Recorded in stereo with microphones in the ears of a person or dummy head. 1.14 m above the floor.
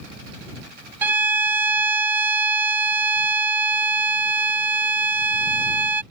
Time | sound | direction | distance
1.0 | a violin | 15° right (ahead or behind) | ?